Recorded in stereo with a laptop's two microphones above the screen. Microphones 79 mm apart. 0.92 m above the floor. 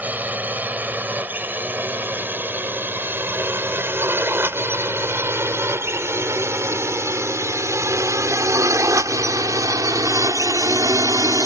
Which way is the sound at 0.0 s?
20° right (ahead or behind).